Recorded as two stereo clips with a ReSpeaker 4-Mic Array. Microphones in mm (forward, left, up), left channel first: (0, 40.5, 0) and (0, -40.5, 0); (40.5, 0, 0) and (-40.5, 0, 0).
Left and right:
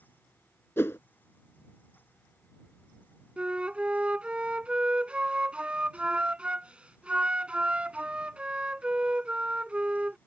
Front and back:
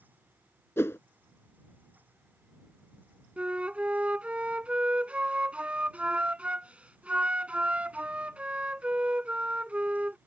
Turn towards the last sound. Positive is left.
turn(degrees=-135)